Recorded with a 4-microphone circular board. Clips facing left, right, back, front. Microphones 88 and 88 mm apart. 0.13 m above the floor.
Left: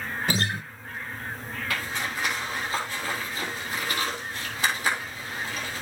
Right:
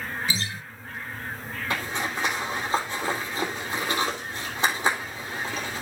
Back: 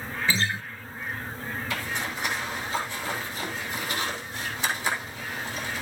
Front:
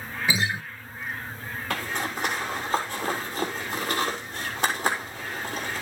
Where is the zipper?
25° right, 3.5 m.